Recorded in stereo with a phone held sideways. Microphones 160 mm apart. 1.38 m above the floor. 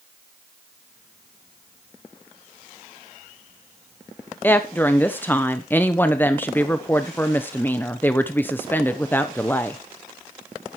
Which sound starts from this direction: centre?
A woman speaking, at 4.4 s.